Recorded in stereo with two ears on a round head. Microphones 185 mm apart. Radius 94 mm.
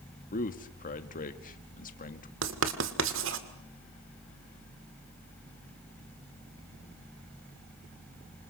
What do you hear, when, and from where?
0.3 s a man speaking: 45° left (ahead or behind), 1.9 m
2.4 s writing: 65° right (ahead or behind), 2.0 m